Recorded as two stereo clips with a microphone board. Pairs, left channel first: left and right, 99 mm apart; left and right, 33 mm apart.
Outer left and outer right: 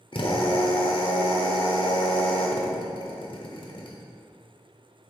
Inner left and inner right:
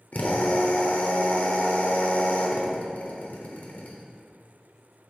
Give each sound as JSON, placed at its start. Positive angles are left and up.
{"t": 0.1, "sound": "a drill", "side_deg": 55, "distance_m": 1.0}